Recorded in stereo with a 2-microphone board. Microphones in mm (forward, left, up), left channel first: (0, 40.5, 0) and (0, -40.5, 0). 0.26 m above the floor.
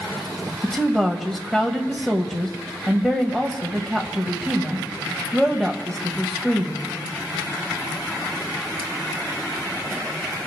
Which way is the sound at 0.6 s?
5° left (ahead or behind).